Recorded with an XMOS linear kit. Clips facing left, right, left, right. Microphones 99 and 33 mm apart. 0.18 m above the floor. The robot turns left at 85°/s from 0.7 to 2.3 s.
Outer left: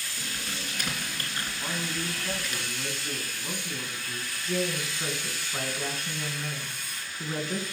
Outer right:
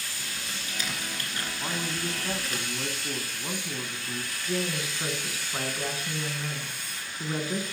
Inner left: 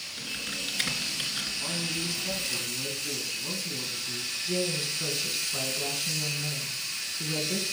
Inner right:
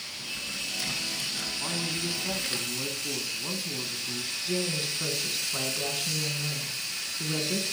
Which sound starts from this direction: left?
Typing on a keyboard, at 0.2 s.